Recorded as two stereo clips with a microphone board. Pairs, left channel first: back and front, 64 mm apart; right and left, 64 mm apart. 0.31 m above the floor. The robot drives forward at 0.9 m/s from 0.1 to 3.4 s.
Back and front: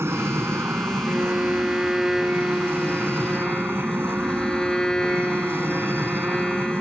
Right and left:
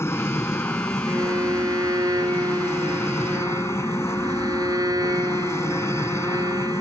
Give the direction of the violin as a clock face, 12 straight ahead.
10 o'clock.